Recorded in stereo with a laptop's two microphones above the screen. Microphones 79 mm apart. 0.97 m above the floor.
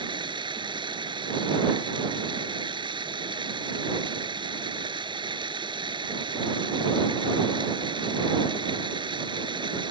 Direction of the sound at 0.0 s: 90° right.